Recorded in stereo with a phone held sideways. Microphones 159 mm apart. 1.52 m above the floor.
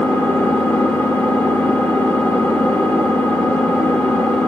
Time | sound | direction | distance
0.0 | an engine running | 10° left (ahead or behind) | 1.2 m